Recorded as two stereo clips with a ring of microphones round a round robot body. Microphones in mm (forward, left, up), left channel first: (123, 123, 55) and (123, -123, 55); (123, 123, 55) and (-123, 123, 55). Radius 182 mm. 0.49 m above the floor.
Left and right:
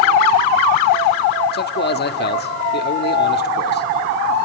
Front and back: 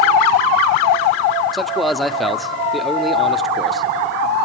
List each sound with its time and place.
1.5 s a man speaking: 90° left, 1.0 m